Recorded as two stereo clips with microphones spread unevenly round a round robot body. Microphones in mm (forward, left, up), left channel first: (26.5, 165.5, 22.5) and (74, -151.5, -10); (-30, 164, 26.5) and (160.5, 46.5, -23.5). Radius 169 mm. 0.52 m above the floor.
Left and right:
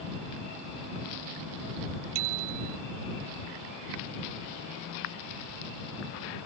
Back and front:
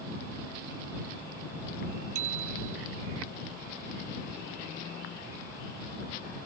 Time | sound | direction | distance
2.1 | a bicycle bell | 80° right | ?